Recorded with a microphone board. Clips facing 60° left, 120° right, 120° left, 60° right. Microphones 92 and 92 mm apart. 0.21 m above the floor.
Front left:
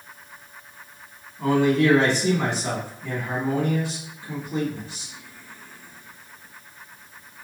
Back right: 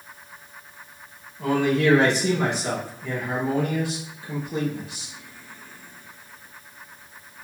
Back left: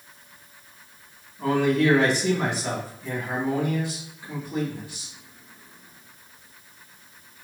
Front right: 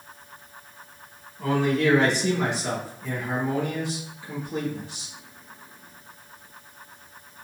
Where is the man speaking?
65° left, 1.8 m.